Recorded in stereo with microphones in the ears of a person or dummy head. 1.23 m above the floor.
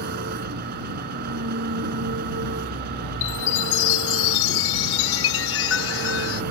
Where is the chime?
80° left.